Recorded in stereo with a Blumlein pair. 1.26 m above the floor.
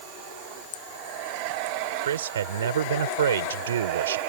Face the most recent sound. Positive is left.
turn(degrees=-65)